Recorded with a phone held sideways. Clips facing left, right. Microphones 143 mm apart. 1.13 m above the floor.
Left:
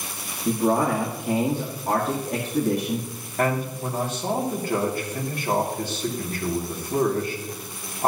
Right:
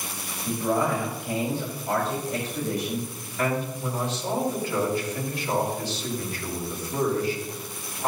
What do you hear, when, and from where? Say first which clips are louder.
0.5 s a man speaking: left 4 dB; 85° left, 1.9 m
3.4 s a man speaking: left 2 dB; 55° left (ahead or behind), 2.5 m